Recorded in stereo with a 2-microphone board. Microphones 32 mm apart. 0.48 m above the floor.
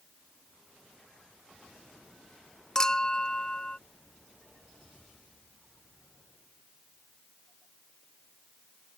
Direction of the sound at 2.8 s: 20° left (ahead or behind).